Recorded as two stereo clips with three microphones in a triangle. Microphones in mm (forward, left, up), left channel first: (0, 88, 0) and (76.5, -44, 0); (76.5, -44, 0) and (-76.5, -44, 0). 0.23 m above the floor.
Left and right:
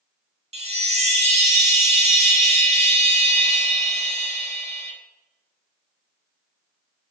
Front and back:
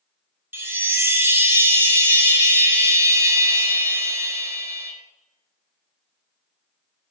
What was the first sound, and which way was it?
A chime, 105° right.